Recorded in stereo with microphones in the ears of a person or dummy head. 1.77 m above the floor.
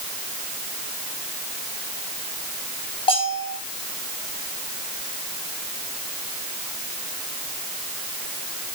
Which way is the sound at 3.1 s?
25° left (ahead or behind).